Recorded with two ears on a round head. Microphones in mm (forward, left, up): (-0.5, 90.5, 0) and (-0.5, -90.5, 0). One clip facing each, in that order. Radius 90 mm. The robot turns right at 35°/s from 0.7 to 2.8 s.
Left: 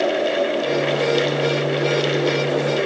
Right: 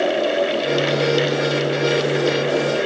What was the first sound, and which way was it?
Only background noise.